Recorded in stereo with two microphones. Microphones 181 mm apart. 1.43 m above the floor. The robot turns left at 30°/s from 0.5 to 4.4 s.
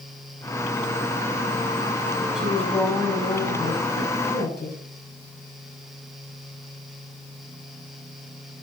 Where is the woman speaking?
Straight behind, 6.5 m; by 4.8 s 120° left, 6.5 m.